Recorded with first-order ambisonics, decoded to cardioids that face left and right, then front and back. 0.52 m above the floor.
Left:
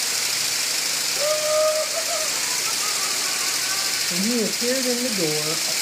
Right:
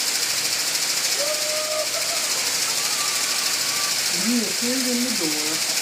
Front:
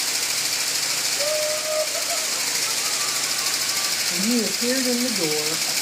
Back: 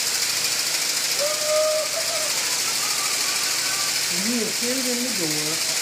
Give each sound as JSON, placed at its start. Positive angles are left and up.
{"t": 1.1, "sound": "laughter", "azimuth_deg": 115, "distance_m": 6.5}
{"t": 4.1, "sound": "a woman speaking", "azimuth_deg": 70, "distance_m": 2.5}